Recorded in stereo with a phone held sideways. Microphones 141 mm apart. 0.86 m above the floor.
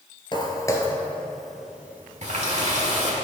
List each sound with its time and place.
0.3 s footsteps: 35° left (ahead or behind), 1.1 m; by 3.2 s 25° right (ahead or behind), 2.5 m
2.2 s a running tap: 55° right (ahead or behind), 1.4 m